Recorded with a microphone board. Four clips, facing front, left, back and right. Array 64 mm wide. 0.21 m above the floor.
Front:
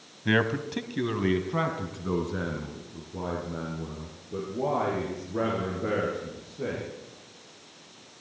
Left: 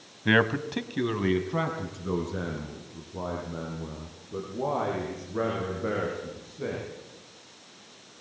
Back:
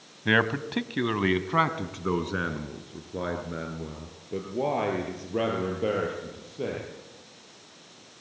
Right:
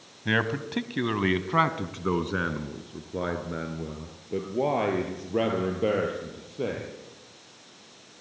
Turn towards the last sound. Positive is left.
turn(degrees=-115)